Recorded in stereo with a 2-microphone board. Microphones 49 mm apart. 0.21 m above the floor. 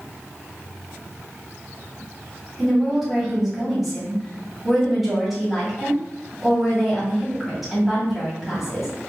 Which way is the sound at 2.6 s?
Centre (ahead or behind).